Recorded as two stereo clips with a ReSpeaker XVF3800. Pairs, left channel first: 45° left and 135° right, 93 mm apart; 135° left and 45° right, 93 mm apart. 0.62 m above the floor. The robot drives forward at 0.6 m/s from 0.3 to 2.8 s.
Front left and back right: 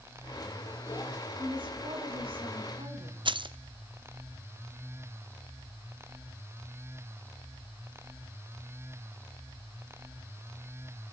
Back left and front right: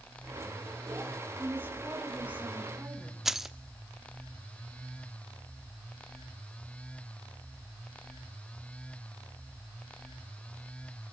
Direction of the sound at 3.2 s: 130° right.